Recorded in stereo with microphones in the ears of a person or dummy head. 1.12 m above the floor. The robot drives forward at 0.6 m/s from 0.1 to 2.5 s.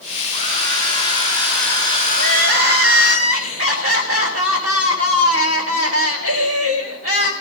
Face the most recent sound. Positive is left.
turn(degrees=-45)  # may be behind; listen again after turning